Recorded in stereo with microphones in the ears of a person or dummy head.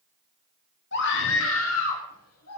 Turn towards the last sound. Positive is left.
turn(degrees=85)